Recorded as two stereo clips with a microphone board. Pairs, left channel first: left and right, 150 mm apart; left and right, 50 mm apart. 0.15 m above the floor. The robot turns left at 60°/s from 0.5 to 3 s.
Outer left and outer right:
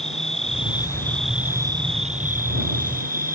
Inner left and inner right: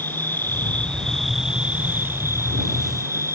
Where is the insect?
45° left; by 3.4 s 105° right.